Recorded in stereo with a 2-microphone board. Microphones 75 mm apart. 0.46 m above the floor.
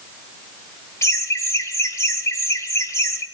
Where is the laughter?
35° left (ahead or behind), 2 m.